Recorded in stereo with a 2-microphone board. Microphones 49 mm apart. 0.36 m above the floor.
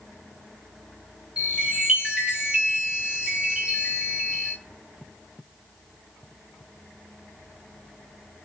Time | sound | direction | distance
1.4 | a chime | 20° right (ahead or behind) | 3 m